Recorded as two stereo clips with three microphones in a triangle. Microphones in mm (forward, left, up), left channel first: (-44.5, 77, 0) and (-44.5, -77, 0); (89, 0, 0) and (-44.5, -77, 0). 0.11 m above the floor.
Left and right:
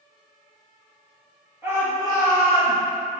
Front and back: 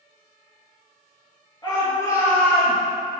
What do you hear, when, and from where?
1.6 s a shout: 20° right, 1.7 m; by 2.8 s 50° right, 2 m